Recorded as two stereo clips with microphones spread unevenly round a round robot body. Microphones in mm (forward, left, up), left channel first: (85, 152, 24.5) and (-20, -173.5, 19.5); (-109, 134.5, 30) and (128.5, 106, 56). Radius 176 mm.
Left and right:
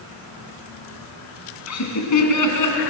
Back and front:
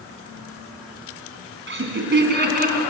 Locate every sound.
1.7 s laughter: 30° left, 3.5 m; by 2.8 s 45° left, 4 m